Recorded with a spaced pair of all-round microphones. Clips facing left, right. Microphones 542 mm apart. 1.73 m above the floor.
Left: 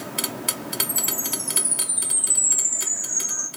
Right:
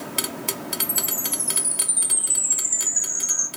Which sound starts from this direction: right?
A chime, at 0.8 s.